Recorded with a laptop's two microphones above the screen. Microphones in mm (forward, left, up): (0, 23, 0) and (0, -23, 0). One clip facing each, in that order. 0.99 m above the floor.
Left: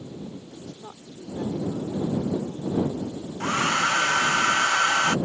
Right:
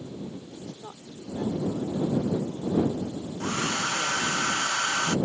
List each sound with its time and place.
0.6 s a woman speaking: centre (ahead or behind)
3.4 s a hair dryer: 40° left (ahead or behind)